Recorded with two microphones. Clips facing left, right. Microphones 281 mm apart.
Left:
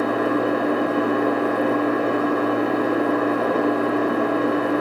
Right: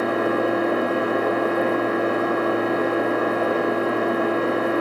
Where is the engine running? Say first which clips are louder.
Left 1 dB; 75° left (ahead or behind), 2 m.